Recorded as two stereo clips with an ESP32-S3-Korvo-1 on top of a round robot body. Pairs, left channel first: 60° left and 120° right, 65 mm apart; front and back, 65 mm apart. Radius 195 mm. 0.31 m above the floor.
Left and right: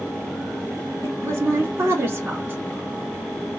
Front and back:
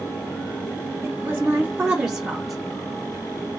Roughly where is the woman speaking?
Behind right.